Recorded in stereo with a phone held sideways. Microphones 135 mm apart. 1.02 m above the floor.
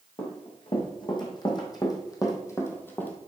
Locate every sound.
0.2 s running footsteps: 40° left (ahead or behind), 3 m; by 3.1 s 10° left (ahead or behind), 1.5 m